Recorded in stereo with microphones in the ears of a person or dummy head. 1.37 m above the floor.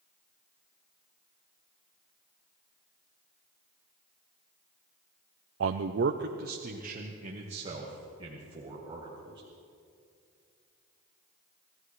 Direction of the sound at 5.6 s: 65° right (ahead or behind).